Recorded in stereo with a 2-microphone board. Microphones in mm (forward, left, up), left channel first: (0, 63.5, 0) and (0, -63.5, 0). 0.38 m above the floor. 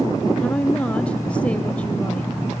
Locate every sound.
0.4 s a woman speaking: 10° left (ahead or behind), 1.8 m